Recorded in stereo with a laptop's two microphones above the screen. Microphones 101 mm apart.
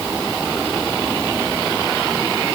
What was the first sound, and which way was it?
Only background noise.